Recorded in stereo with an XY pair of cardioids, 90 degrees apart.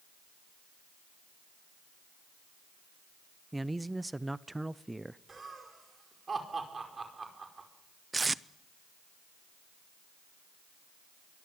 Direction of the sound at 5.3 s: 35° right.